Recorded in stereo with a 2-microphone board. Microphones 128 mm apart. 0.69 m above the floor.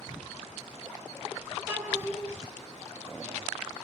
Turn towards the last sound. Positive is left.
turn(degrees=-15)  # may be behind; listen again after turning